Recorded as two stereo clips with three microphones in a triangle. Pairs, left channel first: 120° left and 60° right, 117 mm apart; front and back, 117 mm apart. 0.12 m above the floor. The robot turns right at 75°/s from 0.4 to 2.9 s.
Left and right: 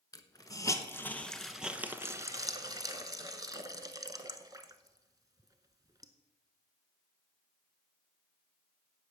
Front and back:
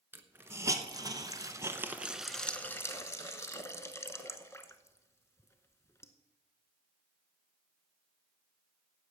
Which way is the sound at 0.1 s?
130° left.